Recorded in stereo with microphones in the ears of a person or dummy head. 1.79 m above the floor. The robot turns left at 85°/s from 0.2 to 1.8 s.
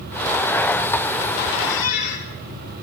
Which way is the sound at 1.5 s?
80° left.